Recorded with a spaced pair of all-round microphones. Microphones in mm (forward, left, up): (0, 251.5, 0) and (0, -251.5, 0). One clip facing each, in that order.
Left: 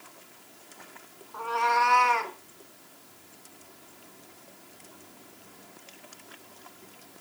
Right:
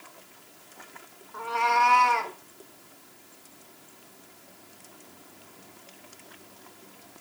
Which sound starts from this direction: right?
A cat meowing, at 1.3 s.